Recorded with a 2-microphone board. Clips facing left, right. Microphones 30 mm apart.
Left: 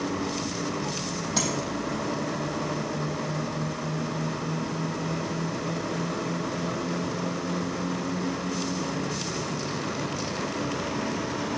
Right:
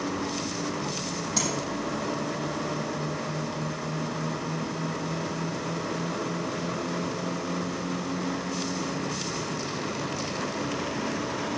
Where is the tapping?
20° left (ahead or behind), 4 m.